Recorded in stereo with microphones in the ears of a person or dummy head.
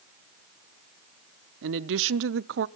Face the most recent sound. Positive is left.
turn(degrees=-65)  # may be behind; listen again after turning